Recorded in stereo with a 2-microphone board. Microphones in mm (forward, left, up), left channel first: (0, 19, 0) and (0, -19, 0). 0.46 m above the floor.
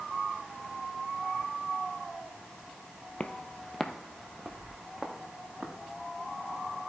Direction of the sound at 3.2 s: 35° left (ahead or behind).